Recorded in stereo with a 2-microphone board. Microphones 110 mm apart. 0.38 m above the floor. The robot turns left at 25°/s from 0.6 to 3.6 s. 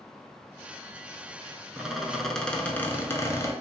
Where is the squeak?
170° right, 0.5 m; by 3.5 s 145° left, 0.5 m.